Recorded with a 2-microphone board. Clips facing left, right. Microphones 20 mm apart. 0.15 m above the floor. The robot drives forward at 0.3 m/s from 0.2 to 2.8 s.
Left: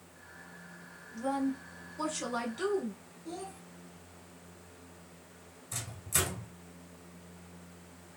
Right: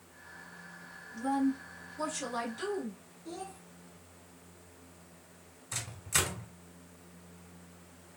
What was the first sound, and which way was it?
A woman speaking, 20° left (ahead or behind).